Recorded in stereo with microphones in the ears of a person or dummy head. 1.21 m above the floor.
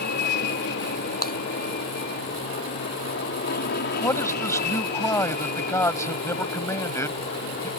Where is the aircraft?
50° left (ahead or behind).